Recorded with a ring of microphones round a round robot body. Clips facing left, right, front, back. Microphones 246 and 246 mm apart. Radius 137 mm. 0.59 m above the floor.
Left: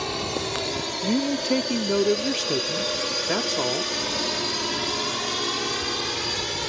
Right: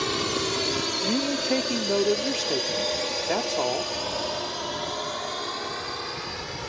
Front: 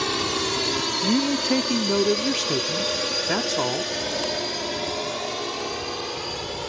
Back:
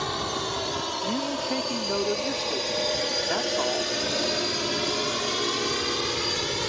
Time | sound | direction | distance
0.0 | a drone | 30° right | ?
1.0 | a man speaking | 25° left | ?